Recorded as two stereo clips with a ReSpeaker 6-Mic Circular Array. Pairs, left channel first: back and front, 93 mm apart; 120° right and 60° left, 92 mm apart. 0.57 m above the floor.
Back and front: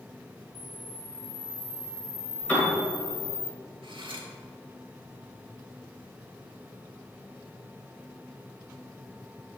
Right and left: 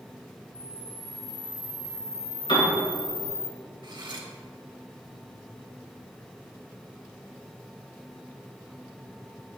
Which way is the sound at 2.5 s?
105° right.